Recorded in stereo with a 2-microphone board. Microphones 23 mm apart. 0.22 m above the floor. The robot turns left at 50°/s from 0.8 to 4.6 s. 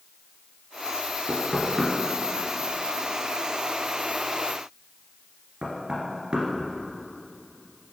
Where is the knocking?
40° left (ahead or behind), 1.5 m; by 6.9 s 40° right (ahead or behind), 1.5 m.